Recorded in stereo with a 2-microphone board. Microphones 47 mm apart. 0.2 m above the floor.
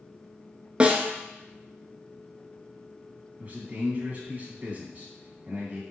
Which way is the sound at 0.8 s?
25° right (ahead or behind).